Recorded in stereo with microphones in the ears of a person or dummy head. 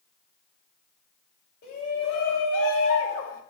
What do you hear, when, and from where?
1.6 s a shout: 55° left (ahead or behind), 4 m; by 3.4 s 80° left, 3.5 m